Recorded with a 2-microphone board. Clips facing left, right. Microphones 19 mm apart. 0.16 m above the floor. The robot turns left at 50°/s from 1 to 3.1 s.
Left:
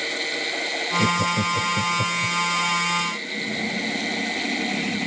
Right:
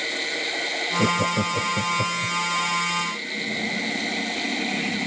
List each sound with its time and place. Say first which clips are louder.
1.0 s laughter: left 1 dB; 80° right; by 2.4 s 15° right (ahead or behind)